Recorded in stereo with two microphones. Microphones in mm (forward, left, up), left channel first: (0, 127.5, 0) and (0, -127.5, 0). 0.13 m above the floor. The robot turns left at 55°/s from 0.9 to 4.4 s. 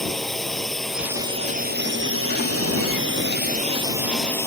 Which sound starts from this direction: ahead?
A drone, at 0.0 s.